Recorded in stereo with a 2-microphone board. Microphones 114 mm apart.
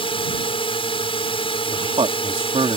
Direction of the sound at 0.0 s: 50° left (ahead or behind).